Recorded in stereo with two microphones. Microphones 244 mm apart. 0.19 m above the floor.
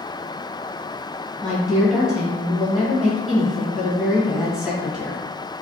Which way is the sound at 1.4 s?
Centre (ahead or behind).